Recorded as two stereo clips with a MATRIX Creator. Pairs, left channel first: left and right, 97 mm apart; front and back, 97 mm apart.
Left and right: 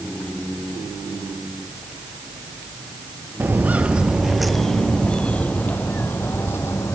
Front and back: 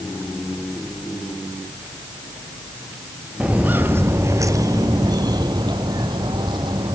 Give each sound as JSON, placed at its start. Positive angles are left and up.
{"t": 3.4, "sound": "footsteps", "azimuth_deg": -120, "distance_m": 1.2}